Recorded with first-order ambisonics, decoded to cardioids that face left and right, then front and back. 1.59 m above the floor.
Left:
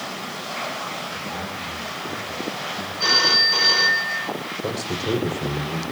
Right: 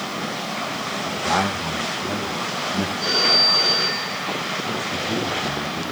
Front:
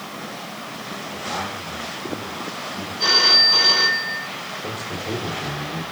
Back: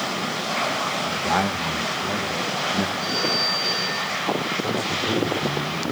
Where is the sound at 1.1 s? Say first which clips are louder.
Right 8 dB, back 3 dB; 135° right, 1.9 m.